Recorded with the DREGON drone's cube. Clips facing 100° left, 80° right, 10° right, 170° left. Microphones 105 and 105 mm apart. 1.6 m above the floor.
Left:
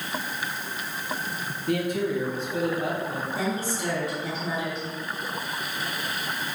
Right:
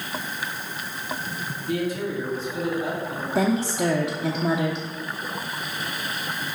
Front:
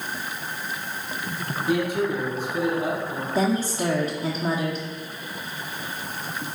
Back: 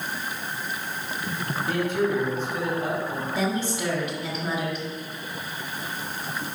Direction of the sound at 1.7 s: 65° left.